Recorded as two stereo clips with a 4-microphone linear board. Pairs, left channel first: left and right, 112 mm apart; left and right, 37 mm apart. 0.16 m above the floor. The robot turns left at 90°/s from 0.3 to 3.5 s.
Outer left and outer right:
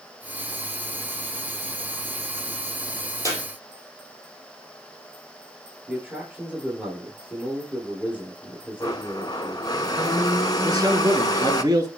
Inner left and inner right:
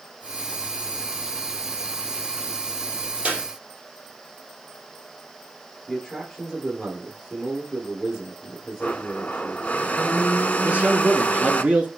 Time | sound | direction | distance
3.2 | a clap | 30° right (ahead or behind) | 3 m
5.9 | a man speaking | 10° right (ahead or behind) | 3.5 m
8.8 | a blender | 35° left (ahead or behind) | 0.6 m
10.6 | a man speaking | 35° right (ahead or behind) | 1.6 m